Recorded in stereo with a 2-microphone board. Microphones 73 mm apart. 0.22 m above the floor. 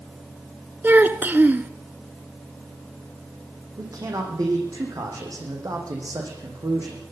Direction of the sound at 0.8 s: 25° right (ahead or behind).